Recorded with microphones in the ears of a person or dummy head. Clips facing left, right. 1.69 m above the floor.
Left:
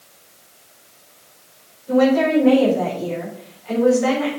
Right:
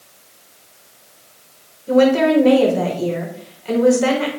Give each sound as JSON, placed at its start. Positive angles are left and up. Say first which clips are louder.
{"t": 1.9, "sound": "a woman speaking", "louder": "right 2 dB", "side_deg": -50, "distance_m": 5.5}